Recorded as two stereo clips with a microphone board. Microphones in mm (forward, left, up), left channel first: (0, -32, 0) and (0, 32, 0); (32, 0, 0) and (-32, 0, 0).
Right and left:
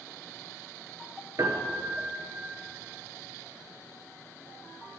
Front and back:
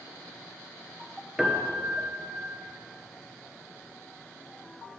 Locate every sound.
1.4 s a piano: 100° left, 1.1 m